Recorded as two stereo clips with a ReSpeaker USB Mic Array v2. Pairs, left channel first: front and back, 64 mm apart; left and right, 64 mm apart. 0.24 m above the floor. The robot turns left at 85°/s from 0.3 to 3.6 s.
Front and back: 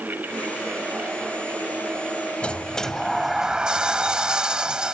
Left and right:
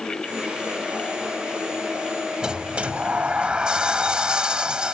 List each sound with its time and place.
2.4 s a sliding door: 35° right; by 4.9 s 135° right